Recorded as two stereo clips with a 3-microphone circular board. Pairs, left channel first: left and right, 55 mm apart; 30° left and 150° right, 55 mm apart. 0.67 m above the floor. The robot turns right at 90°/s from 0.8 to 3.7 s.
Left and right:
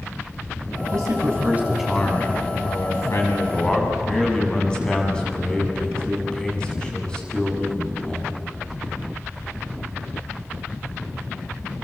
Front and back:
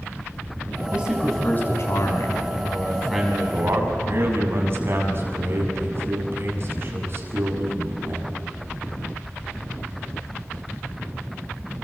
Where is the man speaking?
85° right, 6 m; by 8.3 s 170° left, 6 m.